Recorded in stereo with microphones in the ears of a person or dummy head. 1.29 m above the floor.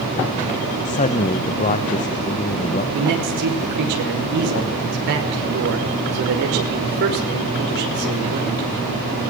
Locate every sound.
0.8 s a man speaking: 35° left (ahead or behind), 1.1 m
2.9 s a man speaking: 55° right (ahead or behind), 5.5 m